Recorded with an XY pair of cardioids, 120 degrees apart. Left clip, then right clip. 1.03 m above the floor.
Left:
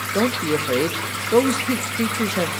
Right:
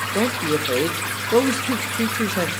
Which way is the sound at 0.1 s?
5° left.